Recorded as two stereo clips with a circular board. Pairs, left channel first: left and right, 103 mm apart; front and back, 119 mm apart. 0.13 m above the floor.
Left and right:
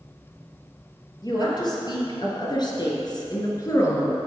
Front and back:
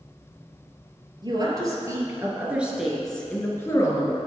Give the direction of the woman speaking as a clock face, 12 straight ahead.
8 o'clock.